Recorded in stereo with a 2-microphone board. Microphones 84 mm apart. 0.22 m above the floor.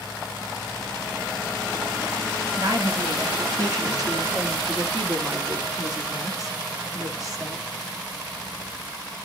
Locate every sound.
2.6 s a woman speaking: 50° right (ahead or behind), 2.5 m; by 7.7 s 45° right (ahead or behind), 5 m